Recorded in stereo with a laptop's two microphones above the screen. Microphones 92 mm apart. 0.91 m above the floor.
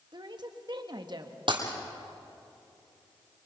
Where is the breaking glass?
65° right (ahead or behind), 3 m.